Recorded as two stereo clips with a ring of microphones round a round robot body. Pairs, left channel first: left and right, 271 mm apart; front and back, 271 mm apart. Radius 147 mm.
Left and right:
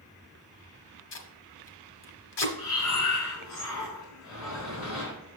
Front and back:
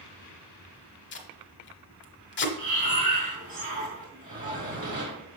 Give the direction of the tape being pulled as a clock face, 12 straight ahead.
10 o'clock.